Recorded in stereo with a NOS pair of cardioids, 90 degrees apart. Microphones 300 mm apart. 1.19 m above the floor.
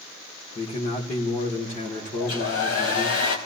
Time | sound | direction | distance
0.6 | a man speaking | 20° left | 2.5 m
2.2 | a hair dryer | 55° left | 2.5 m